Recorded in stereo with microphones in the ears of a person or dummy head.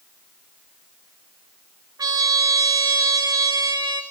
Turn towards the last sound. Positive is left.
turn(degrees=-15)  # may be behind; listen again after turning